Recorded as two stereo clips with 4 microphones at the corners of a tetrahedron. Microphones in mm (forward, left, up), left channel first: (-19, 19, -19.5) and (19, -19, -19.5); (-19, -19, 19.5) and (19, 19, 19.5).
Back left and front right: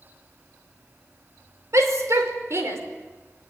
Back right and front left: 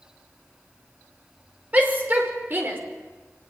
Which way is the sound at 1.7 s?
20° right.